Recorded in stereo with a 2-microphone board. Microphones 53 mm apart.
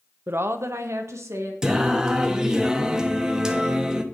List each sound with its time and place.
0.3 s a woman speaking: 45° right (ahead or behind), 0.5 m; by 1.5 s 75° right (ahead or behind), 1.9 m
1.6 s singing: 10° right (ahead or behind), 0.8 m